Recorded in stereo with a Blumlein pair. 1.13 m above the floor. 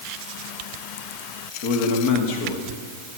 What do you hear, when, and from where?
1.6 s a man speaking: 45° left, 1.9 m; by 2.8 s 55° left, 2.5 m